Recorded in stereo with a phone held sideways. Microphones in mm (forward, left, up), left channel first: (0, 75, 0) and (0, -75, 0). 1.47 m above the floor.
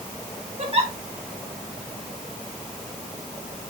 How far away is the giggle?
About 1.5 m.